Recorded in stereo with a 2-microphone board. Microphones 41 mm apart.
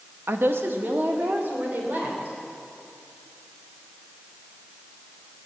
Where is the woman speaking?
75° right (ahead or behind), 0.9 m; by 2.4 s 40° right (ahead or behind), 4 m.